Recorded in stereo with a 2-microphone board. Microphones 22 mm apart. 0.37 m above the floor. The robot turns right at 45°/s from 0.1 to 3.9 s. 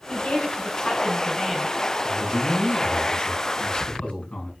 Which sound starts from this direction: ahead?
A man speaking, at 2.0 s.